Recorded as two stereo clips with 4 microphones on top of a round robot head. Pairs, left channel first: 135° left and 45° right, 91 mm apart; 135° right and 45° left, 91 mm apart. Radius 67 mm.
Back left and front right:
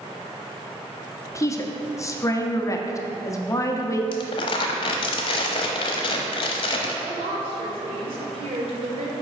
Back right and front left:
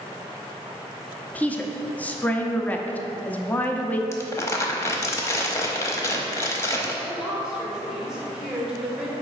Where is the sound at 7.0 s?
35° right, 1.9 m.